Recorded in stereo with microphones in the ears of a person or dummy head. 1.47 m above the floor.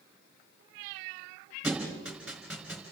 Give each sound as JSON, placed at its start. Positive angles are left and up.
{"t": 1.6, "sound": "a thud", "side_deg": -5, "distance_m": 4.0}